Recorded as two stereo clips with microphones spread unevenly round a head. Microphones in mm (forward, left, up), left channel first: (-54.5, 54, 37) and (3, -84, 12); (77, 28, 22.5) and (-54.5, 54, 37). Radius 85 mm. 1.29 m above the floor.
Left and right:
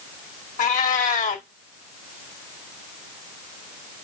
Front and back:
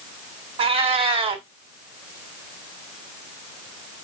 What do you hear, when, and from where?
0.6 s a cat meowing: 135° left, 1.3 m